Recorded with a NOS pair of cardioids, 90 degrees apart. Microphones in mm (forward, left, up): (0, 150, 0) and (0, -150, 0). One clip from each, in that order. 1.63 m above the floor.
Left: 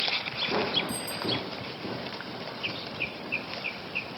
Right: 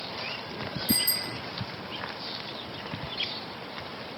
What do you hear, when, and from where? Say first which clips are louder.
0.9 s a bicycle bell: right 3 dB; 70° right, 4.5 m